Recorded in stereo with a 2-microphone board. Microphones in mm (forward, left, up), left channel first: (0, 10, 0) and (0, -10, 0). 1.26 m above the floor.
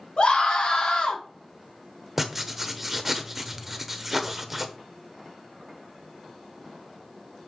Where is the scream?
55° left (ahead or behind), 3.5 m; by 1.2 s 65° left (ahead or behind), 3.5 m.